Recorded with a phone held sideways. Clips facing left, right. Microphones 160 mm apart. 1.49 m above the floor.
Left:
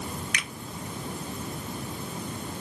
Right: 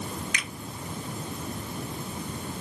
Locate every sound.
0.3 s a finger snap: 70° left (ahead or behind), 1.8 m